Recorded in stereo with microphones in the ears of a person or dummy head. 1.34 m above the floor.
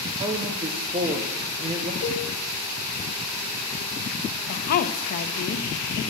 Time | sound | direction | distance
0.2 | a man speaking | 25° right (ahead or behind) | 0.6 m
2.0 | a cowbell | 55° left (ahead or behind) | 1.0 m
4.5 | a woman speaking | 55° left (ahead or behind) | 0.8 m